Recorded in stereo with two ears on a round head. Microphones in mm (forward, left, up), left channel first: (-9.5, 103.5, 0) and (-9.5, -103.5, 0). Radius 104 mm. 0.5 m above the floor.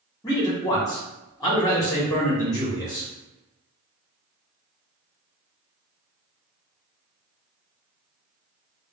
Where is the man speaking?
15° left (ahead or behind), 0.9 m.